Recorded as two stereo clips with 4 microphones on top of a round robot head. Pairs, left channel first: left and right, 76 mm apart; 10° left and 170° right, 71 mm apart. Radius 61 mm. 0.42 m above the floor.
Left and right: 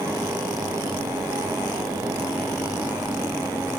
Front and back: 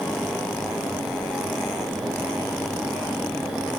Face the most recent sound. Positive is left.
No sound to turn to.